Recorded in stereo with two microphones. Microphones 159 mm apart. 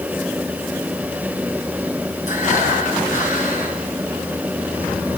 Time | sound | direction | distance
2.3 | breathing | 55° left (ahead or behind) | 8.5 m